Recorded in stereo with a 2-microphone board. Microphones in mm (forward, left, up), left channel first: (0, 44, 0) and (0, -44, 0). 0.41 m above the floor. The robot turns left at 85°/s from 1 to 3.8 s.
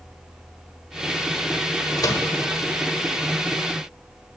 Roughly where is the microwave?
Left.